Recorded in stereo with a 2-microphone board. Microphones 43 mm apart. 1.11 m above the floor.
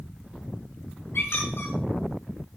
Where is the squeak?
70° left (ahead or behind), 6.5 m.